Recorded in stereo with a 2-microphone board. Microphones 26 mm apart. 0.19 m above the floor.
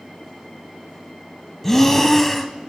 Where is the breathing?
10° left (ahead or behind), 0.6 m.